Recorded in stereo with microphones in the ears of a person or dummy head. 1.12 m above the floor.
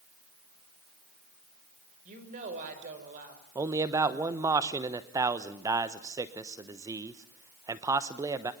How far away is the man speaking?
About 0.9 m.